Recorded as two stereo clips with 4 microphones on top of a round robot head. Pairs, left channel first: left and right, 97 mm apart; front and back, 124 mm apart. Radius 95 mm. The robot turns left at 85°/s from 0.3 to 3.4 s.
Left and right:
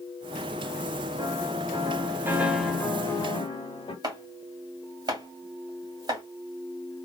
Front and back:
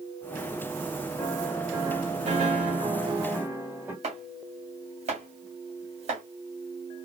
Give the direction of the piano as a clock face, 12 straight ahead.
2 o'clock.